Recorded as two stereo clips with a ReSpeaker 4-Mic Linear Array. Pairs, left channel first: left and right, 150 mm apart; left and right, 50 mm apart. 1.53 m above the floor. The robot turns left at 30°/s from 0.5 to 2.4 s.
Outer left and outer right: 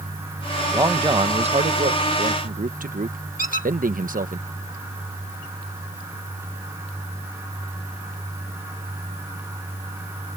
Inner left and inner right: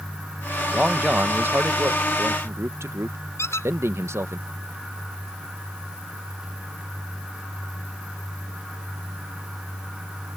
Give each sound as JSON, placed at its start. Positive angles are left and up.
{"t": 0.7, "sound": "a man speaking", "azimuth_deg": -25}
{"t": 3.4, "sound": "a squeak", "side_deg": 70}